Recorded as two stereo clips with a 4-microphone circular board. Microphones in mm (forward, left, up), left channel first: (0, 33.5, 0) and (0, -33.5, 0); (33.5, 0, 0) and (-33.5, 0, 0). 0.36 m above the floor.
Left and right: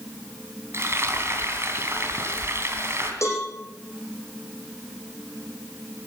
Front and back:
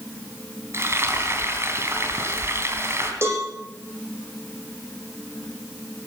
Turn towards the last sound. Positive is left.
turn(degrees=130)